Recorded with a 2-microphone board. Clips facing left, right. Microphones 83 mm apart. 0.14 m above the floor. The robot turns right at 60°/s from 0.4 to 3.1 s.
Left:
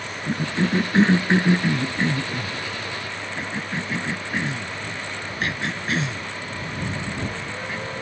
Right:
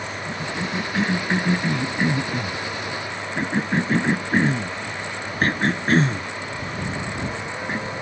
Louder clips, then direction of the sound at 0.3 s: Left 7 dB; 45° left (ahead or behind).